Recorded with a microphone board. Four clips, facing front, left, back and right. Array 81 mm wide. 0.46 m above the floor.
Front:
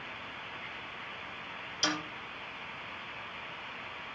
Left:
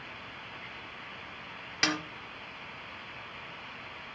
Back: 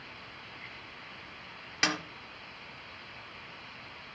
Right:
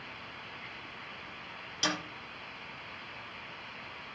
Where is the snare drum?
140° left, 3.5 m.